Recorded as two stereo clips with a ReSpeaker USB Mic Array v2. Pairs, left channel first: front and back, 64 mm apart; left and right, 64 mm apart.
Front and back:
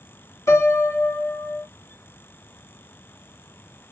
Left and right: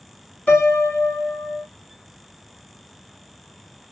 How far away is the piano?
About 2 m.